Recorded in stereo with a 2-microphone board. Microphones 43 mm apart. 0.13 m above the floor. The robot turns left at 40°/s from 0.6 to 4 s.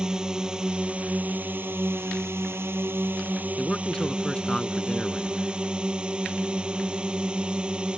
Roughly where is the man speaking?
Centre.